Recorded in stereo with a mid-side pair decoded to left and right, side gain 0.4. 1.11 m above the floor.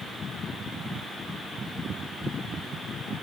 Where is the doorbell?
No doorbell in this recording.